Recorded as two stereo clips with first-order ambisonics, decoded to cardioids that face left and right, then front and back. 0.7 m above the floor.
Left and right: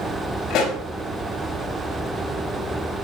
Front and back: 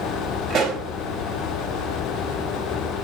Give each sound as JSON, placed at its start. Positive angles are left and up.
{"t": 0.5, "sound": "a pop", "azimuth_deg": 130, "distance_m": 4.5}